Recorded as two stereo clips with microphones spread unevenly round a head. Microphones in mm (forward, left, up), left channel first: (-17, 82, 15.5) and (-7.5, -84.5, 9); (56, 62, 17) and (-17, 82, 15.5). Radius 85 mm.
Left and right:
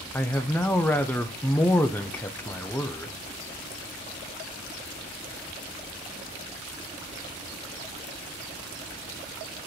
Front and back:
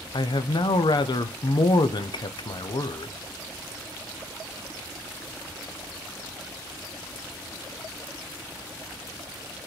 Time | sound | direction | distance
0.1 | a man speaking | 10° left | 0.5 m